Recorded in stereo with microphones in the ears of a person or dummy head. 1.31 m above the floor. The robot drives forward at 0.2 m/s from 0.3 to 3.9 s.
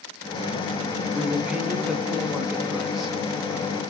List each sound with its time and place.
1.1 s a man speaking: 5° right (ahead or behind), 0.6 m